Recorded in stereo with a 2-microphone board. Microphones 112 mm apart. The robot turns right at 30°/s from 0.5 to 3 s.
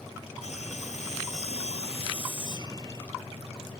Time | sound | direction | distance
0.4 | sawing | 75° left | ?